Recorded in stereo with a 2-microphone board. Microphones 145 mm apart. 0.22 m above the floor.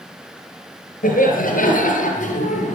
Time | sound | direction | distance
1.0 | laughter | 75° left (ahead or behind) | 4 m